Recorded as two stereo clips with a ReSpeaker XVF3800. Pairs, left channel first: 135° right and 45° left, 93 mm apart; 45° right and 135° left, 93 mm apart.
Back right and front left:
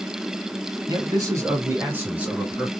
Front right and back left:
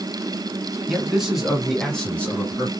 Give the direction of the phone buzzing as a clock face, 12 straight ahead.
No phone buzzing in this recording.